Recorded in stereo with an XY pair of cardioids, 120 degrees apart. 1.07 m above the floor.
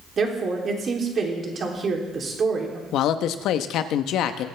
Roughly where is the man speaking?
Left.